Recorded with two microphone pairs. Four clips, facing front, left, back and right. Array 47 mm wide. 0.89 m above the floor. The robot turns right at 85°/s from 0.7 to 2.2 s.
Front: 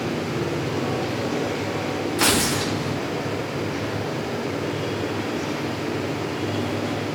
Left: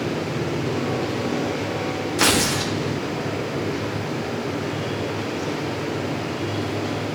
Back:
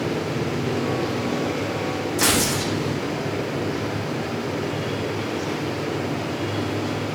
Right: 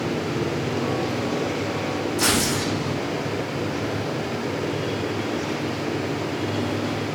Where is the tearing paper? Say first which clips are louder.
Left 4 dB, front 1 dB; 75° left, 0.5 m.